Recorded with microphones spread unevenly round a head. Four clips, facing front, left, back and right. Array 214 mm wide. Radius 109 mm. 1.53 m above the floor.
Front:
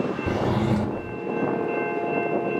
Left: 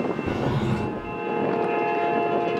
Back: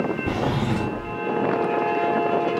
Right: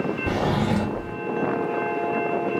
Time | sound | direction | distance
0.3 | a drawer | 50° right | 1.8 m